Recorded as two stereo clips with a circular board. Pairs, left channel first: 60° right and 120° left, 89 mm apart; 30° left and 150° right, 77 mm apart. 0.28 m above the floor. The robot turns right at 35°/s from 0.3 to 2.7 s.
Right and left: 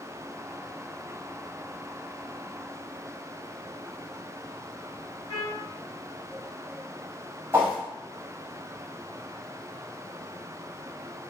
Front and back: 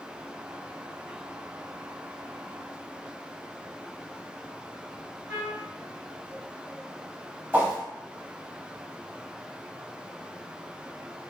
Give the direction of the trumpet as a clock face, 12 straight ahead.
1 o'clock.